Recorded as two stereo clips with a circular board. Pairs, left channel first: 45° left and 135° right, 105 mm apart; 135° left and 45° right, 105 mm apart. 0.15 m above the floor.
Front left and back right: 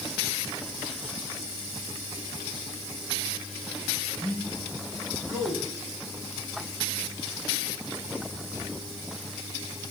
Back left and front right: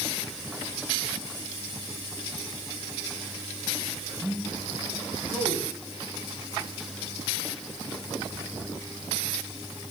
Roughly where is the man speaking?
Right.